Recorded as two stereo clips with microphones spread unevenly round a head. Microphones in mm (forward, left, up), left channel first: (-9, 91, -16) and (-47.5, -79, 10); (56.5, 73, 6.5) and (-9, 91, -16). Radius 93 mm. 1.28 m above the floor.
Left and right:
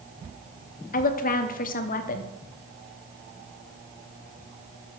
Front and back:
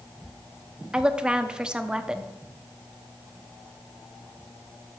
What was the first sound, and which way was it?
A woman speaking, 100° left.